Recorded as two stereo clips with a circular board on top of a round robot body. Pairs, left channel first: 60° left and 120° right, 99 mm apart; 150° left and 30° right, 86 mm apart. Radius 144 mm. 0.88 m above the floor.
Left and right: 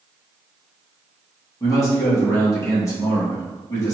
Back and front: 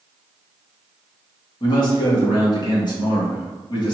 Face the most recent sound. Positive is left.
turn(degrees=120)